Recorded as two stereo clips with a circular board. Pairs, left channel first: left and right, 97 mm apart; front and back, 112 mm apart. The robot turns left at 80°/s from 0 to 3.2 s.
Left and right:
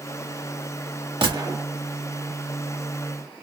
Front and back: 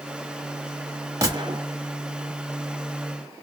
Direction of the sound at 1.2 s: 120° right.